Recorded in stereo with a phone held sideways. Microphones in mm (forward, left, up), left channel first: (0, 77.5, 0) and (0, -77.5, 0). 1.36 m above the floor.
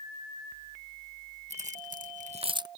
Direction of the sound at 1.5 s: 45° right (ahead or behind).